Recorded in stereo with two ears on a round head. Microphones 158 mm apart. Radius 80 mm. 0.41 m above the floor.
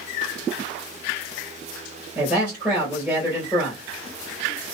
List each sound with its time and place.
2.1 s a man speaking: 10° right (ahead or behind), 2.5 m